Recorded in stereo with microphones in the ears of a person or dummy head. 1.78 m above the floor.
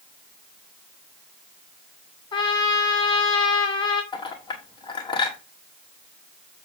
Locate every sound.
2.3 s a trumpet: 35° left (ahead or behind), 2.5 m
4.1 s a clink: 35° left (ahead or behind), 1.4 m